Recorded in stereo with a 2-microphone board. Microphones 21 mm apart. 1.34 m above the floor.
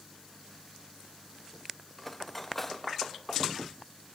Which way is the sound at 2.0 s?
5° left (ahead or behind).